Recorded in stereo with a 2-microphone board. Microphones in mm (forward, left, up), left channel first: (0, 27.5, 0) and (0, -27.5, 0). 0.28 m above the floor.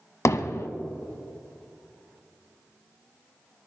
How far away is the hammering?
About 0.9 m.